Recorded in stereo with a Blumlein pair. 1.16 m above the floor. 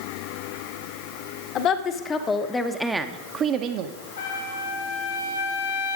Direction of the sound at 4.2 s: 60° left.